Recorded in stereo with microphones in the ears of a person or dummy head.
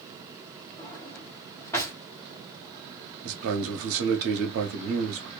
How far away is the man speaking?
About 0.8 m.